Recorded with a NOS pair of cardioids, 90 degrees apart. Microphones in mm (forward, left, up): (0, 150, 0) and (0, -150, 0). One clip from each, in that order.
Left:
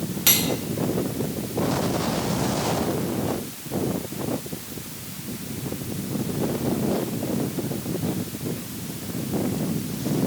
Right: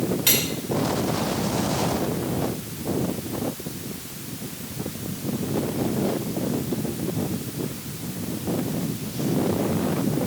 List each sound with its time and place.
0.3 s cutlery clinking: 30° left, 2 m